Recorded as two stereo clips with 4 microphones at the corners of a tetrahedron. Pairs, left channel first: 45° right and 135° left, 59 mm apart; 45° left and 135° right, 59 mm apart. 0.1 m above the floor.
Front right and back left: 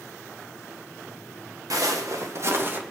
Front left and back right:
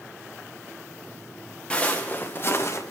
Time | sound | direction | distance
1.7 | footsteps | 115° left | 2 m